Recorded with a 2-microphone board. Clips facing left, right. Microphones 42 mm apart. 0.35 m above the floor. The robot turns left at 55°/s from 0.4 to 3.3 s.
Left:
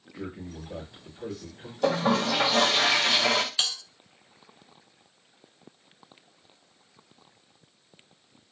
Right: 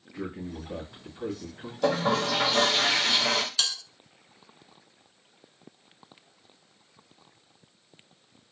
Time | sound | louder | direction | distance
0.1 | a man speaking | right 2 dB | 60° right | 1.8 m
1.8 | a toilet flushing | left 1 dB | straight behind | 1.3 m
3.6 | a bell | even | 20° left (ahead or behind) | 0.7 m